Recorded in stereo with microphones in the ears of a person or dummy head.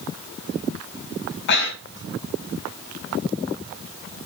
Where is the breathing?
65° left (ahead or behind), 2 m.